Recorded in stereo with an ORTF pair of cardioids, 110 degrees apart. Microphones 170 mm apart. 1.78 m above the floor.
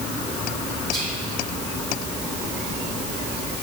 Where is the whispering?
20° left, 1.1 m.